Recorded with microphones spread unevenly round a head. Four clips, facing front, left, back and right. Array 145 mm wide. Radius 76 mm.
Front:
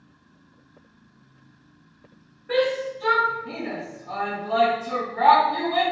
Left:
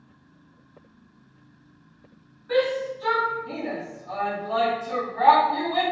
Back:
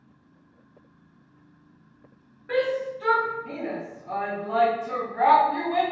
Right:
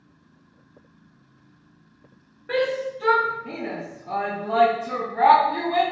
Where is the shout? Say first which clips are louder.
Left 1 dB, front 2 dB; 90° right, 1.4 m.